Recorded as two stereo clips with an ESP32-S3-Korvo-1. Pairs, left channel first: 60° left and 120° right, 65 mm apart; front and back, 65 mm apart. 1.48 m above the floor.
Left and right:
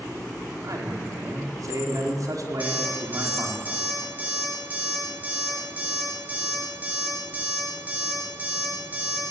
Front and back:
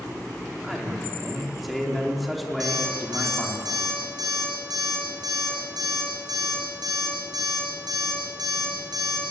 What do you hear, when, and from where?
0.6 s a man speaking: 90° right, 4.5 m
2.6 s an alarm clock: 175° left, 9 m